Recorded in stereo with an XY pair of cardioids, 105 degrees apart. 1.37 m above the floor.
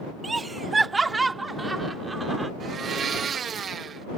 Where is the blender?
50° right.